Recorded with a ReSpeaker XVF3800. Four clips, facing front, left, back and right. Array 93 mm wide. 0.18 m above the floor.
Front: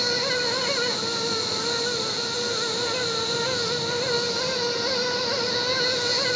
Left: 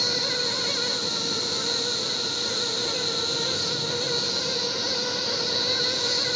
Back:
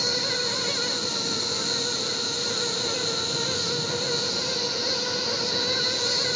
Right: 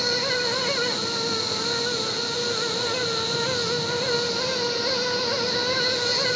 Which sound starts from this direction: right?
An insect, at 0.0 s.